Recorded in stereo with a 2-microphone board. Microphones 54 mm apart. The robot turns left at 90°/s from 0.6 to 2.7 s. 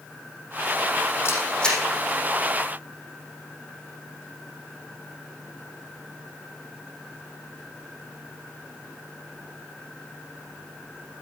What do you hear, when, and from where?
1.2 s a camera shutter: 50° left (ahead or behind), 4.5 m; by 1.8 s 5° right (ahead or behind), 4.5 m